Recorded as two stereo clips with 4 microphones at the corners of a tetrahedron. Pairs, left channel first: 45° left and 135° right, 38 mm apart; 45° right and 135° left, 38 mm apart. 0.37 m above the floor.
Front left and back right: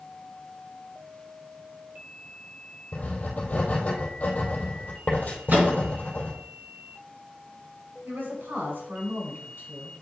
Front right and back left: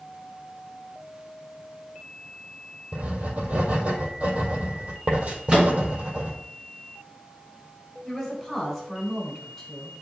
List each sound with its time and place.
2.9 s writing: 90° left, 1.8 m
5.5 s a microwave: 165° right, 2.5 m
8.1 s a woman speaking: 140° right, 4 m